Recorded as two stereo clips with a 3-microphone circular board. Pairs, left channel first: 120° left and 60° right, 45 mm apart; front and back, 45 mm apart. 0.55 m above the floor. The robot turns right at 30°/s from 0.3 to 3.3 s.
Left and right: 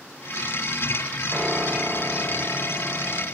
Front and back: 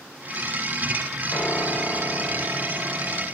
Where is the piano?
5° left, 1.3 m; by 3.2 s 60° left, 1.3 m.